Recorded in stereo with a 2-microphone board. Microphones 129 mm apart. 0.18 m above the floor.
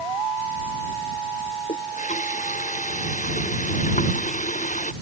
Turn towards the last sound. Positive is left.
turn(degrees=75)  # may be behind; listen again after turning